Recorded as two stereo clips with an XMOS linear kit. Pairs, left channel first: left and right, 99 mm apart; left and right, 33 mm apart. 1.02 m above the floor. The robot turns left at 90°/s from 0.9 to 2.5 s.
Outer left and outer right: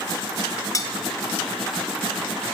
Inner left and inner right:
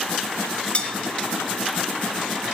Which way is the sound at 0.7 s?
35° left (ahead or behind).